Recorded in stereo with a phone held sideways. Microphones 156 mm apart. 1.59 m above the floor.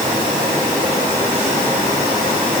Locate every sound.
Only background noise.